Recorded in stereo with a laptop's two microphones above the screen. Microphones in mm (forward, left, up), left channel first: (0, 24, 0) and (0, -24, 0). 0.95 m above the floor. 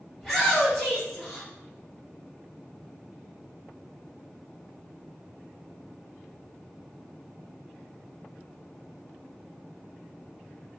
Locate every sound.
0.2 s a shout: centre (ahead or behind), 2 m